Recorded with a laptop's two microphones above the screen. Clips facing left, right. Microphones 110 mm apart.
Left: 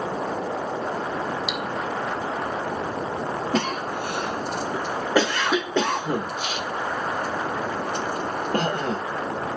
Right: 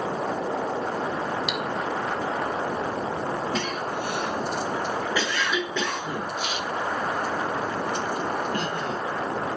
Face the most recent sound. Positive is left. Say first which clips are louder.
# left 3 dB
turn(degrees=50)  # may be behind; listen again after turning